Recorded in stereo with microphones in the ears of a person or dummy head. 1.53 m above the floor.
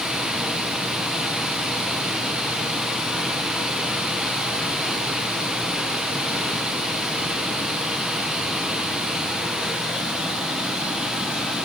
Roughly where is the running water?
Centre.